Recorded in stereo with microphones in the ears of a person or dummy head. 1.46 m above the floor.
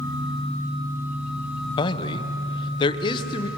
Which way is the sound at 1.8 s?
25° left (ahead or behind).